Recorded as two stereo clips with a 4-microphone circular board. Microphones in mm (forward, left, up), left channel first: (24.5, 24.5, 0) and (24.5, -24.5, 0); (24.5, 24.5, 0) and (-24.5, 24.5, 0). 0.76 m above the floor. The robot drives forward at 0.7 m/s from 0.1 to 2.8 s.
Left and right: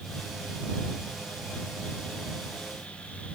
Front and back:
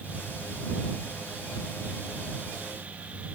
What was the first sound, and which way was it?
Only background noise.